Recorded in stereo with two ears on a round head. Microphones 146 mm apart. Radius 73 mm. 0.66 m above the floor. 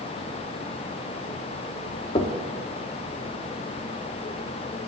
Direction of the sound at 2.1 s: 35° left (ahead or behind).